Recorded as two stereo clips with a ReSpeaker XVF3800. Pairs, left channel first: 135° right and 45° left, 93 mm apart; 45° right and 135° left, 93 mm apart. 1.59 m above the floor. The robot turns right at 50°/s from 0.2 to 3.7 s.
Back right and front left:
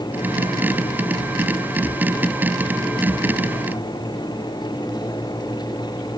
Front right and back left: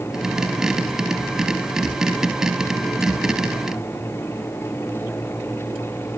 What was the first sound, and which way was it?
Only background noise.